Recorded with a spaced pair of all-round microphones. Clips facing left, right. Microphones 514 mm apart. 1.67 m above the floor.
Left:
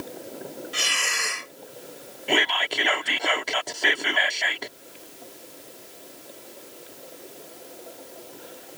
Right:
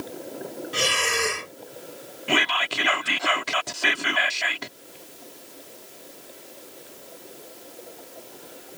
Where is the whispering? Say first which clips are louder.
Left 1 dB; 30° right (ahead or behind).